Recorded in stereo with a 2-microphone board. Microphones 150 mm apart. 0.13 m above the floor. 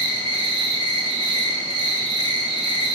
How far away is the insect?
About 0.7 m.